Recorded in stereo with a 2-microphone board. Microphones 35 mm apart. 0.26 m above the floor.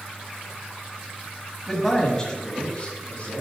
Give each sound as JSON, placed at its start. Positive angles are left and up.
{"t": 1.7, "sound": "a man speaking", "side_deg": 0, "distance_m": 1.3}